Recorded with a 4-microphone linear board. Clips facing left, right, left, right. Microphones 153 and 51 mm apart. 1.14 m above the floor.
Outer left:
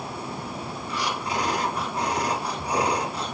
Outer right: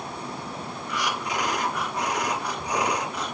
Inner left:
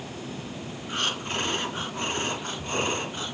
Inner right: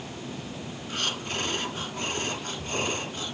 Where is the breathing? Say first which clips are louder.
Even, inner left 2 dB; 30° left (ahead or behind), 3 m.